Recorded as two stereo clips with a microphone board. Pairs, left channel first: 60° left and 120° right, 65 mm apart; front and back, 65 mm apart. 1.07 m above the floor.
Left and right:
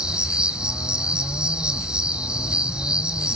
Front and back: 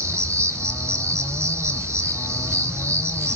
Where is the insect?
170° left, 1.2 m.